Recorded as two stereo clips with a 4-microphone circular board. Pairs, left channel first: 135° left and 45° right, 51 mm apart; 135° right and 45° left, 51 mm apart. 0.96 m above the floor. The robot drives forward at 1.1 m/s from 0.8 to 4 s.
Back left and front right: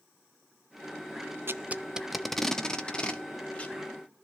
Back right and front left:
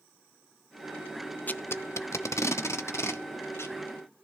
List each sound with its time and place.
1.5 s tape being pulled: 80° right, 0.7 m; by 3.8 s 165° right, 2.5 m